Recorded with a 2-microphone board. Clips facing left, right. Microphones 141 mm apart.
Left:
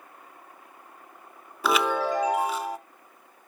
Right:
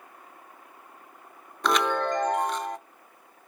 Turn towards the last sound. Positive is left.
turn(degrees=5)  # may be behind; listen again after turning